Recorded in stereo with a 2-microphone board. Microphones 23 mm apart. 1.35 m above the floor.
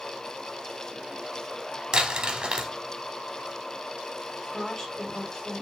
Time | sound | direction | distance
1.9 | crumpling | 40° right (ahead or behind) | 1.3 m
4.4 | a woman speaking | 25° left (ahead or behind) | 5.5 m